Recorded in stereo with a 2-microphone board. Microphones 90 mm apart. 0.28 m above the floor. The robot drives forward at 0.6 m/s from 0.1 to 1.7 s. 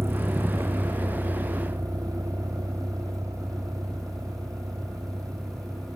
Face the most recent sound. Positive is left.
turn(degrees=-40)  # may be behind; listen again after turning